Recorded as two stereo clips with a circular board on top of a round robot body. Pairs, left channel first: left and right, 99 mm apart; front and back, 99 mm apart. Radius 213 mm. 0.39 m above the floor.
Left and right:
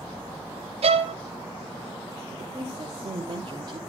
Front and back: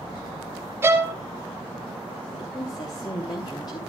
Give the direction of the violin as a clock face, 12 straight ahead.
4 o'clock.